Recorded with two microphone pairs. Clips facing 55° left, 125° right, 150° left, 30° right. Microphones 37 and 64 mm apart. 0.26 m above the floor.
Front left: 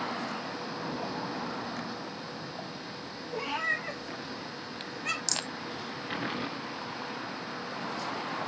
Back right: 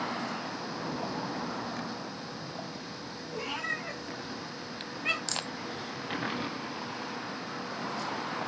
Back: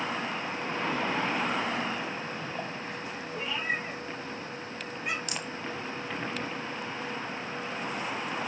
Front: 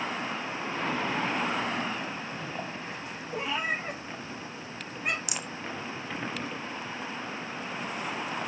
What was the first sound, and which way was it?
A cat meowing, 20° right.